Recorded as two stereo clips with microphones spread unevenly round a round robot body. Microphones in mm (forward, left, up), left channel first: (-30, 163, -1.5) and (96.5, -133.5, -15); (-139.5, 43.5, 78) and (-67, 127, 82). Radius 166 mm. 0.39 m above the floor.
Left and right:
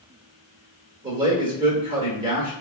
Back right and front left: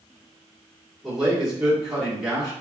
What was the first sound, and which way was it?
A man speaking, 35° right.